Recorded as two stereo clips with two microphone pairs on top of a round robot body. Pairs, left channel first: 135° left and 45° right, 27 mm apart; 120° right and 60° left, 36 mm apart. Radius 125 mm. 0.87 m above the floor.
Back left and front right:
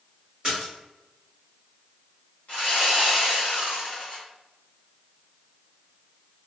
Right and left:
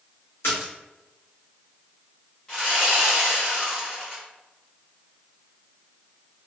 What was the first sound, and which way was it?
A splash, 115° right.